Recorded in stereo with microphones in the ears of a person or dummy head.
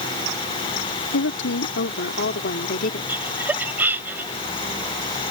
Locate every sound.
1.1 s a woman speaking: 65° left (ahead or behind); by 3.1 s 40° left (ahead or behind)
3.1 s laughter: 5° right (ahead or behind)